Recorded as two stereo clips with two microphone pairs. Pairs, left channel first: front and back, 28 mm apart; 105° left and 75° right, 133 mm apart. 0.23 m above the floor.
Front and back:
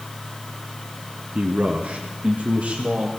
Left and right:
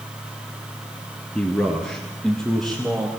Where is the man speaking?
175° right, 2.5 m; by 3.1 s 165° right, 5 m.